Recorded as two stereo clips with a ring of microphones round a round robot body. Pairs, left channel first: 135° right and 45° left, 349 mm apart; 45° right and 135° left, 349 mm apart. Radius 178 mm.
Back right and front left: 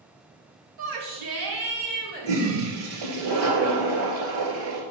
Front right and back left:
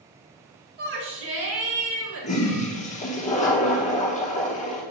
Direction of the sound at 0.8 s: 75° left.